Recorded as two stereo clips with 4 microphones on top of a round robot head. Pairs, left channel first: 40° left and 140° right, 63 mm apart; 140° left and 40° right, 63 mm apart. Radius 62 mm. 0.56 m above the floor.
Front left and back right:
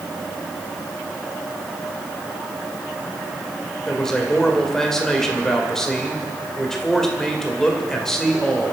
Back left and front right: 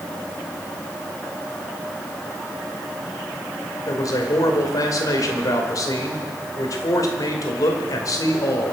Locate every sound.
3.9 s a man speaking: 120° left, 2.5 m